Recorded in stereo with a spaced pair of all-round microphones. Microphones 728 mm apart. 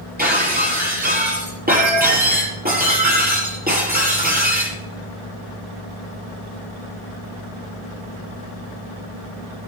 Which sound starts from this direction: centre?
Breaking glass, at 0.2 s.